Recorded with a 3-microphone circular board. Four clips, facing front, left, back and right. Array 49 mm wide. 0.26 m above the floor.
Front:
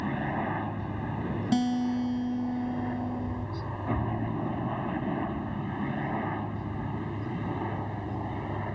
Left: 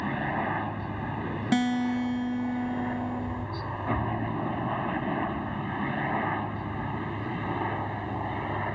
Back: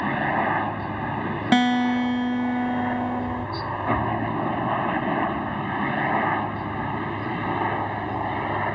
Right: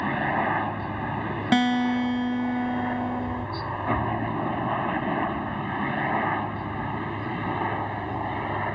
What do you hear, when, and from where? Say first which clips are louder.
0.0 s a helicopter: right 5 dB, back 8 dB; 150° right; by 8.8 s 165° right
1.5 s a guitar: right 4 dB, back 8 dB; 155° right